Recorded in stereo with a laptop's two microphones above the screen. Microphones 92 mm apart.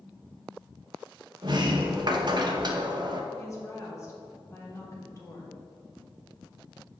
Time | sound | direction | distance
1.4 | a sliding door | 50° right (ahead or behind) | 0.6 m
3.3 | a woman speaking | 35° left (ahead or behind) | 1.6 m